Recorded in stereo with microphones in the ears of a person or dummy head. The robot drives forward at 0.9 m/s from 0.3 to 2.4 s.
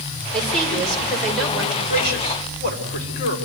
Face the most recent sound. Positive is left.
turn(degrees=60)  # may be behind; listen again after turning